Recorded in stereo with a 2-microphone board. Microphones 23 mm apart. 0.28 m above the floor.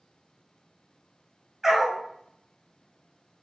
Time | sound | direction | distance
1.6 | a dog barking | 20° right (ahead or behind) | 1.3 m